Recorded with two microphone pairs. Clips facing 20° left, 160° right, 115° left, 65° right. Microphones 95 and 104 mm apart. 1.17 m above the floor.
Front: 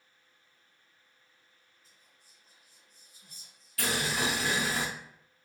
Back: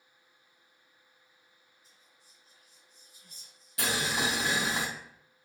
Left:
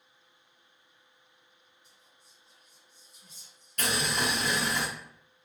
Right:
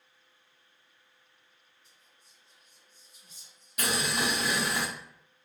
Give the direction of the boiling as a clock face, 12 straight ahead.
4 o'clock.